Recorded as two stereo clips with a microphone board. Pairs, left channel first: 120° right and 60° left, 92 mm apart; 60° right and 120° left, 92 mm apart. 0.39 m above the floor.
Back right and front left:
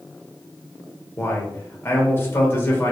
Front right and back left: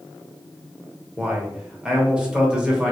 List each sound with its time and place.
1.2 s a man speaking: 165° right, 0.9 m